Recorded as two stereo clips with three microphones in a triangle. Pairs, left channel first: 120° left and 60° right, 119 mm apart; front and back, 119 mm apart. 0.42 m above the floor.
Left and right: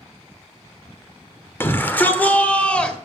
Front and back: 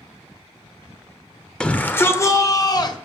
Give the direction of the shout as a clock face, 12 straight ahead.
10 o'clock.